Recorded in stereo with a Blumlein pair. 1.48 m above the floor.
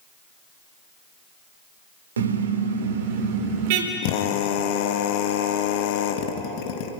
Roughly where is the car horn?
Ahead right.